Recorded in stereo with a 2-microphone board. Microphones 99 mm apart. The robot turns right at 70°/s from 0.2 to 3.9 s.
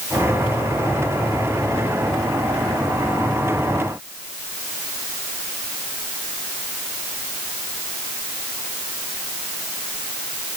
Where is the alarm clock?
I don't hear an alarm clock.